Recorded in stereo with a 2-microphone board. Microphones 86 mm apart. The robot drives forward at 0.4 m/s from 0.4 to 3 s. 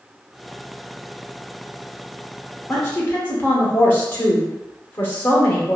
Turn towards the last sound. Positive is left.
turn(degrees=25)  # may be behind; listen again after turning